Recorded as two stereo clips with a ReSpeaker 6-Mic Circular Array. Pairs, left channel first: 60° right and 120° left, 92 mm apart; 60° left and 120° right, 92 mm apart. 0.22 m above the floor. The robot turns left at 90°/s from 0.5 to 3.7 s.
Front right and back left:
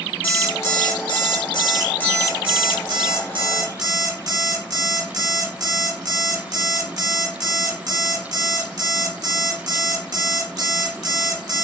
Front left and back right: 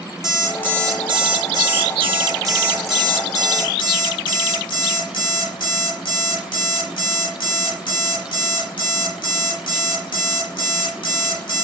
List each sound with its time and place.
0.2 s an alarm clock: 5° left, 0.8 m; by 11.6 s 80° left, 0.8 m